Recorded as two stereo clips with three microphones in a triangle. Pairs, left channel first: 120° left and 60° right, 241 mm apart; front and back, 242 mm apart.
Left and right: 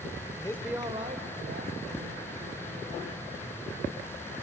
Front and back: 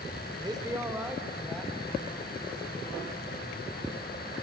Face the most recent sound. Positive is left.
turn(degrees=-80)